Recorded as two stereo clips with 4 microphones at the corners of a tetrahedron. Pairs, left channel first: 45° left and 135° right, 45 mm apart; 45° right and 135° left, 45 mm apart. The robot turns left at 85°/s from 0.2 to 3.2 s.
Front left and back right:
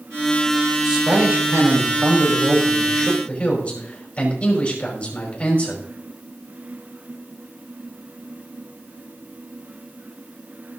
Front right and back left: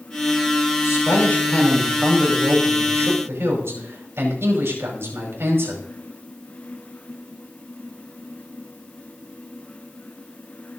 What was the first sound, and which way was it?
A man speaking, 55° right.